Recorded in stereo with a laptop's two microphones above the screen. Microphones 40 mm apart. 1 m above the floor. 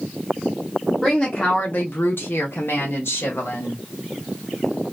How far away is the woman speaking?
About 0.5 m.